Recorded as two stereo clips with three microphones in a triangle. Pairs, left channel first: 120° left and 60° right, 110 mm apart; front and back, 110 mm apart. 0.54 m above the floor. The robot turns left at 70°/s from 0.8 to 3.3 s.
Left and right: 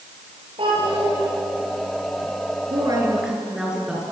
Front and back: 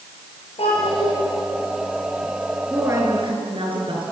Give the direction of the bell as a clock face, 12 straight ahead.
No bell in this recording.